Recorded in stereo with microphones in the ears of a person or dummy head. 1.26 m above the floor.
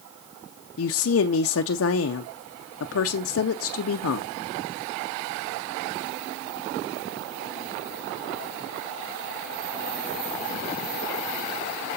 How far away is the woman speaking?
About 0.5 m.